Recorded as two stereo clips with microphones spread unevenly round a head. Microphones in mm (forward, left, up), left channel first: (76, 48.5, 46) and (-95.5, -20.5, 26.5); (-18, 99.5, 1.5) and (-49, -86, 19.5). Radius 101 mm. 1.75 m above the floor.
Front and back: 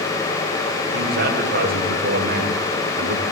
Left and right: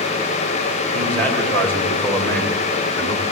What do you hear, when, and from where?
0.9 s a man speaking: 165° left, 9 m; by 3.3 s 155° left, 7.5 m